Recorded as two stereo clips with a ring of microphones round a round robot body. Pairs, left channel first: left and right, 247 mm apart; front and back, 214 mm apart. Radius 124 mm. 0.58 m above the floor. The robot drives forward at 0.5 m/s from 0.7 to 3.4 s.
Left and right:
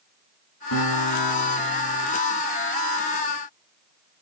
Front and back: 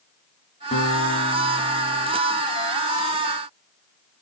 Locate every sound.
0.7 s a guitar: 65° left, 4 m; by 2.1 s 70° left, 4 m